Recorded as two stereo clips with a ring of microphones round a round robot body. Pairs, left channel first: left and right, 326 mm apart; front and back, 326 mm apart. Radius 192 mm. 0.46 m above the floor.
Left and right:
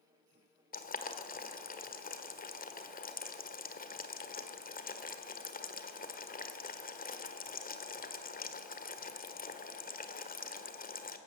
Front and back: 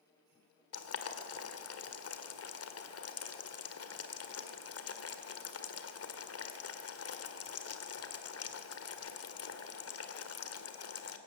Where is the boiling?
30° left, 1.9 m.